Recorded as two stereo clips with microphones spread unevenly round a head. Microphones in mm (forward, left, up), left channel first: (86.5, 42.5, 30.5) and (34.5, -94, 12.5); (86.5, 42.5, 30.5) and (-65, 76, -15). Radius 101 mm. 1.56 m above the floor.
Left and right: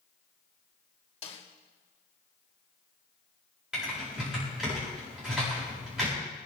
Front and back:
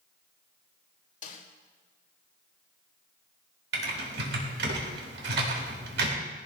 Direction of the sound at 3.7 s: 160° left.